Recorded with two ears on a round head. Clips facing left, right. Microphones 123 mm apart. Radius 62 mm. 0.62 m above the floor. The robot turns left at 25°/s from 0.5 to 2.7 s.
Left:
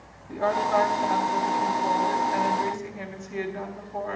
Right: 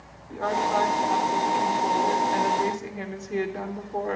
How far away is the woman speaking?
About 1.7 m.